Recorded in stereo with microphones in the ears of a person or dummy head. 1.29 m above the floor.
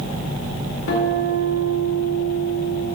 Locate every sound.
0.9 s a guitar: 85° left, 3 m